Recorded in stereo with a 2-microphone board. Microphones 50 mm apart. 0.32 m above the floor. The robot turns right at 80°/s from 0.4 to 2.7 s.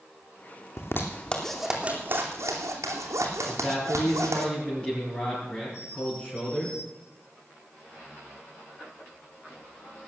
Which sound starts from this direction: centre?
A man speaking, at 3.5 s.